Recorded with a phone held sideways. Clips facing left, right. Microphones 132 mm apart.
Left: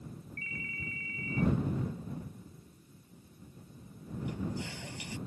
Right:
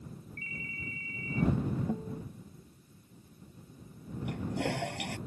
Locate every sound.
0.4 s a ringtone: 30° right (ahead or behind)
1.9 s a guitar: 80° right
4.2 s a toilet flushing: 65° right (ahead or behind)